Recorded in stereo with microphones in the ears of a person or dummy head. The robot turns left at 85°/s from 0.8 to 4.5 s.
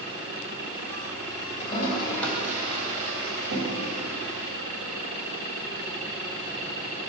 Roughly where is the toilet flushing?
Left.